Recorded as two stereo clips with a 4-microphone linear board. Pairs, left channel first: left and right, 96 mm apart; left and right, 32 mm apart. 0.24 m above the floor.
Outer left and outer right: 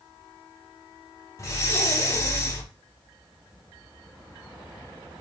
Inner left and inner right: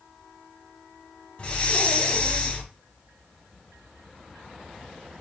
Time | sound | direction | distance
1.4 | breathing | 35° left (ahead or behind) | 0.7 m